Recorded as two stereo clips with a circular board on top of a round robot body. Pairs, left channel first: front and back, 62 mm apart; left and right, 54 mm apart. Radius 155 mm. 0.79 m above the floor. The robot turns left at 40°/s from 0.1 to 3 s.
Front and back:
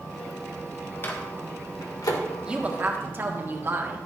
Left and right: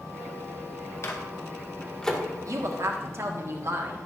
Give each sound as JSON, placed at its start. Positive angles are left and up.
{"t": 1.0, "sound": "a microwave", "azimuth_deg": 55, "distance_m": 1.9}
{"t": 2.5, "sound": "a woman speaking", "azimuth_deg": -105, "distance_m": 1.6}